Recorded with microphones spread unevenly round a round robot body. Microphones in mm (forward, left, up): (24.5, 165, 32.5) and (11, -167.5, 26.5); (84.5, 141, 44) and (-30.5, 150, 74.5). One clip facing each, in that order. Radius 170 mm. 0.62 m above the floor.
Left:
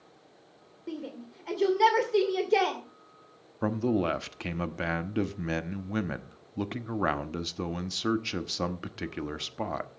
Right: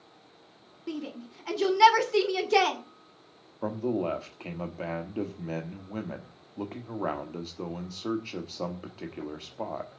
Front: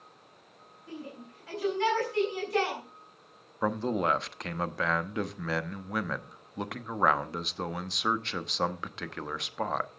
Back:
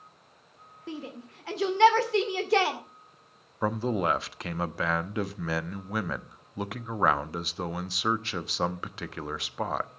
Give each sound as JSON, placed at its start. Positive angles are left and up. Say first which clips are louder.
{"t": 0.9, "sound": "a shout", "louder": "right 2 dB, back 4 dB", "azimuth_deg": -150, "distance_m": 2.0}
{"t": 3.6, "sound": "a man speaking", "louder": "left 2 dB, back 1 dB", "azimuth_deg": 70, "distance_m": 1.0}